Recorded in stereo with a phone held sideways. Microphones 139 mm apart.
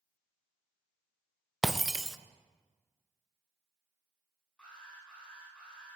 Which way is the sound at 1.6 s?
Centre (ahead or behind).